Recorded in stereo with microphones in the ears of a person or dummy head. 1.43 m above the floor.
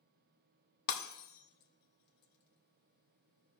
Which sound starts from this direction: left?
Breaking glass, at 0.9 s.